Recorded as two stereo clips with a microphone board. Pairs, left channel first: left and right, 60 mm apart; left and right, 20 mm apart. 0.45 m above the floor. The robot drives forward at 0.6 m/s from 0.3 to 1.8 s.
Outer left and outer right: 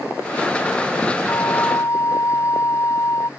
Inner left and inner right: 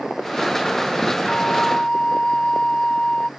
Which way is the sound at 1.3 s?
55° left (ahead or behind).